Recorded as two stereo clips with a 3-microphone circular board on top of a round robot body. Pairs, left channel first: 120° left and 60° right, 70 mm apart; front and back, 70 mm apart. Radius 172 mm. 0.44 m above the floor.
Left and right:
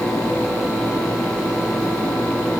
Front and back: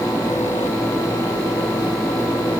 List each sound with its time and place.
Only background noise.